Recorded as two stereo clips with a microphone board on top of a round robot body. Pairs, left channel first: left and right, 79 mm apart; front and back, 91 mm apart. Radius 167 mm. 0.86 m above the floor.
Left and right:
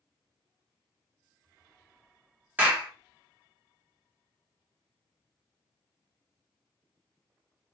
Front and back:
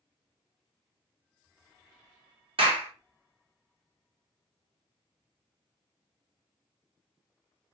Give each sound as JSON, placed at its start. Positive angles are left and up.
{"t": 2.6, "sound": "a clap", "azimuth_deg": -160, "distance_m": 0.9}